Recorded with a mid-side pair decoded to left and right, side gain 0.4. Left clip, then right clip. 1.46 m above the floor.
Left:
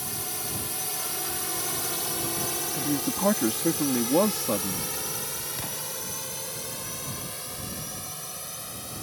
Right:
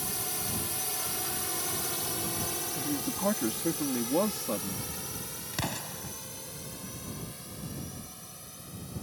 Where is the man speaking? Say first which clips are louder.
Left 5 dB; 40° left.